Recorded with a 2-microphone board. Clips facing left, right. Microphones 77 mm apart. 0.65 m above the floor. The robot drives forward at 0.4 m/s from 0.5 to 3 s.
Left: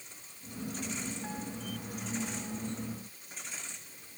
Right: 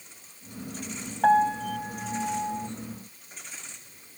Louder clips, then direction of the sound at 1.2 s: Right 19 dB; 80° right.